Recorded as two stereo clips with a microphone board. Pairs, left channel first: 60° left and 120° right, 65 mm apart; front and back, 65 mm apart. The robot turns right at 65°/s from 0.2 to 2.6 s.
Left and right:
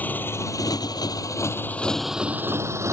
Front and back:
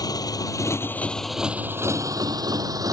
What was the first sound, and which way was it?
A motorcycle, straight ahead.